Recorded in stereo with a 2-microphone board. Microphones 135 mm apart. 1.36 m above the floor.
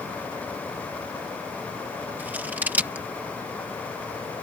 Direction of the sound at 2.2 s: 10° right (ahead or behind).